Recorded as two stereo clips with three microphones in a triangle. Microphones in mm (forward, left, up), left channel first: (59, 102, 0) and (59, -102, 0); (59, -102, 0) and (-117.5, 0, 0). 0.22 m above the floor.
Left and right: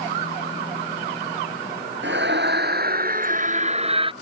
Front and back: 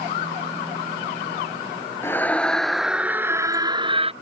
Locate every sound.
2.0 s a scream: 110° right; by 4.1 s 150° right